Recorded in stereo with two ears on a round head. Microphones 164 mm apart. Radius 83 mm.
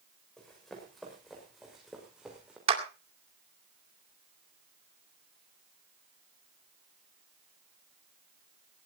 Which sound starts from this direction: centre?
Running footsteps, at 0.4 s.